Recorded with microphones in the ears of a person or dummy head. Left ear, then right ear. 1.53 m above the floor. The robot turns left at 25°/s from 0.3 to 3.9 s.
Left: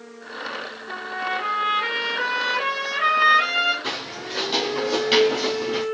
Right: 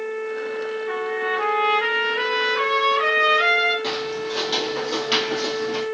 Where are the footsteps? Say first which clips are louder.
Right 4 dB; 25° right (ahead or behind), 2.5 m; by 5.8 s 10° left (ahead or behind), 1.8 m.